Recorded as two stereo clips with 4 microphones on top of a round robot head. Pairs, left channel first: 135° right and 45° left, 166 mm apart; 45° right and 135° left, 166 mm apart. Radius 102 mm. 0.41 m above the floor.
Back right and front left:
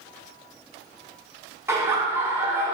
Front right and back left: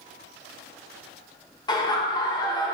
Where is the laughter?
15° right, 1.0 m.